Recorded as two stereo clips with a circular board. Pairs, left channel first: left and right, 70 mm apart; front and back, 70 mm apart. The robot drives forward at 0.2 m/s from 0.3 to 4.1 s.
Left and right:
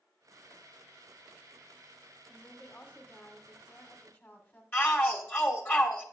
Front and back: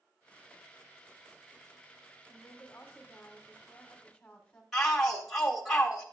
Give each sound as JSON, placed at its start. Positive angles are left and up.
{"t": 2.3, "sound": "a woman speaking", "azimuth_deg": 45, "distance_m": 1.5}
{"t": 4.7, "sound": "a shout", "azimuth_deg": 95, "distance_m": 1.3}